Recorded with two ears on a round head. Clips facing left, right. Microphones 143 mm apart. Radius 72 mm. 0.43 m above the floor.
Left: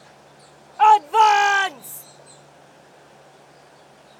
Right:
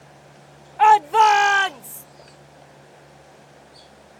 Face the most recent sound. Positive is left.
turn(degrees=5)  # may be behind; listen again after turning